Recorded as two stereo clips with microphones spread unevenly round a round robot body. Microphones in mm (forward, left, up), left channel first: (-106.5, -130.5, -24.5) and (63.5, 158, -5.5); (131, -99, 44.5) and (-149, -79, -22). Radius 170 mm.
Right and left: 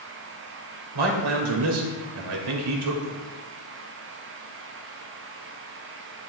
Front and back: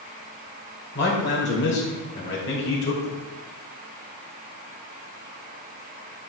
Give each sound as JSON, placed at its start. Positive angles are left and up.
{"t": 0.9, "sound": "a man speaking", "azimuth_deg": 60, "distance_m": 2.5}